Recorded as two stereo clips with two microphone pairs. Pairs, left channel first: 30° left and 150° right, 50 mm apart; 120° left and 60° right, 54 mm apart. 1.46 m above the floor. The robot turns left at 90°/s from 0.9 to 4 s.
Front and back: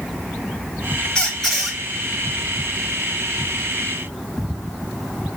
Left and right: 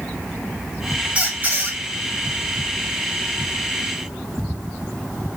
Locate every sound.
1.1 s a squeak: 25° right, 0.9 m; by 1.8 s 80° right, 0.9 m